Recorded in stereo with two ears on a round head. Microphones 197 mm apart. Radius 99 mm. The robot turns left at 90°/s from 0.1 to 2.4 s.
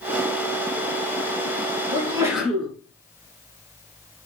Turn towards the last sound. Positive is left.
turn(degrees=180)